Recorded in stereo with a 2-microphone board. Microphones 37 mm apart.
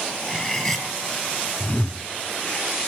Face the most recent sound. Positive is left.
turn(degrees=35)  # may be behind; listen again after turning